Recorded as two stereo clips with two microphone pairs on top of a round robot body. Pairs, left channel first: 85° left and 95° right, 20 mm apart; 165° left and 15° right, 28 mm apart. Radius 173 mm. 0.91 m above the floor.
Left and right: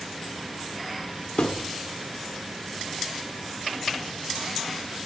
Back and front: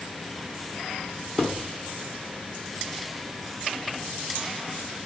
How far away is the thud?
About 0.7 m.